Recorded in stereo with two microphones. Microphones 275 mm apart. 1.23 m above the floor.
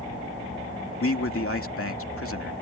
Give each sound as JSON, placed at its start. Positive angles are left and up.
{"t": 1.0, "sound": "a man speaking", "side_deg": 50}